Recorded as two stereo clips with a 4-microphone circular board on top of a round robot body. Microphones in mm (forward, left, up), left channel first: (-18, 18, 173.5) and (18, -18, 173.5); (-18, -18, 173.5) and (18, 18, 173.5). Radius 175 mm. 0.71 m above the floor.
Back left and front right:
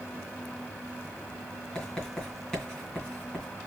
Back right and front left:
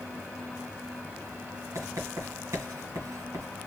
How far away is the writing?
About 2.5 m.